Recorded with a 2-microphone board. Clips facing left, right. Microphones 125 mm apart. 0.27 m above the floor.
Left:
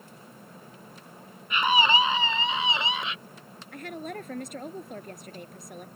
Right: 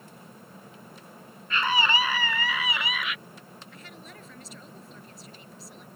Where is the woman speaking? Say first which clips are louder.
Left 15 dB; 60° left (ahead or behind).